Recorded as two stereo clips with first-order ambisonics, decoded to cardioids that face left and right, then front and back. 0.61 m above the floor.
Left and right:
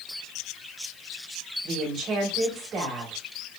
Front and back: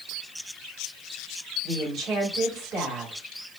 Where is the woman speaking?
135° right, 1.9 m.